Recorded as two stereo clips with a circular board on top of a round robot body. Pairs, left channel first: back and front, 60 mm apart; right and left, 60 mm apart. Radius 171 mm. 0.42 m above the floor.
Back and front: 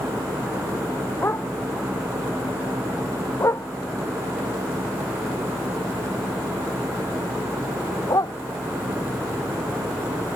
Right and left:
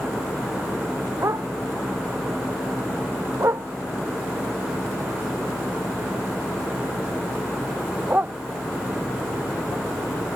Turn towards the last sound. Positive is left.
turn(degrees=155)